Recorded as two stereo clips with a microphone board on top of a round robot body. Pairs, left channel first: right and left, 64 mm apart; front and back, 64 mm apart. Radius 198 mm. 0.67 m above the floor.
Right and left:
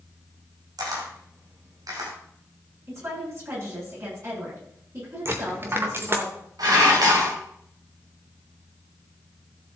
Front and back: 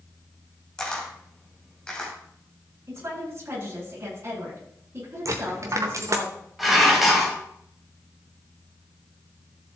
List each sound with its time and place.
0.8 s a camera shutter: 75° left, 3 m
2.9 s a woman speaking: 130° left, 8 m
5.2 s a dropped coin: 140° left, 0.6 m
6.6 s dishes clattering: 90° left, 3 m